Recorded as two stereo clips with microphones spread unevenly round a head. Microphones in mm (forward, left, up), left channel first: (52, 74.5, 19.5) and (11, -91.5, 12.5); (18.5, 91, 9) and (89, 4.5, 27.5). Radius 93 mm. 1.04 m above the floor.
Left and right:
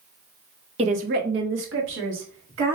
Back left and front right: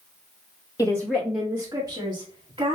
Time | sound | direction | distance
0.8 | a woman speaking | 165° right | 0.6 m